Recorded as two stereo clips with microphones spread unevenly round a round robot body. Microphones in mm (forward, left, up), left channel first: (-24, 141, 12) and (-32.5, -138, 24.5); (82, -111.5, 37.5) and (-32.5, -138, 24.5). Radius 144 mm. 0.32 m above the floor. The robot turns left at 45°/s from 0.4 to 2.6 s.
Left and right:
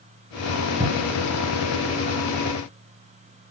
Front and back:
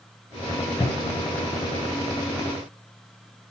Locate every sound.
0.8 s a cupboard door: 40° right, 2.5 m; by 1.3 s 60° right, 2.5 m